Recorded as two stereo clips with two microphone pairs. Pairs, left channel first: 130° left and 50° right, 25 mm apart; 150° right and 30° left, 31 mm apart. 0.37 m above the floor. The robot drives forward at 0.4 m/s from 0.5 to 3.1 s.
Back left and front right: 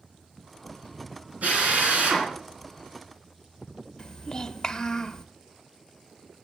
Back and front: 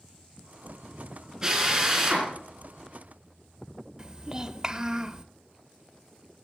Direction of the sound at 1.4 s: 40° right.